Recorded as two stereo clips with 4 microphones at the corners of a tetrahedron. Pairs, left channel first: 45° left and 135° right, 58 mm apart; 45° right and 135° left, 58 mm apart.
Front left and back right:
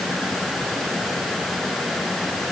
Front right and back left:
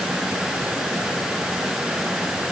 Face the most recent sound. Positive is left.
No sound to turn to.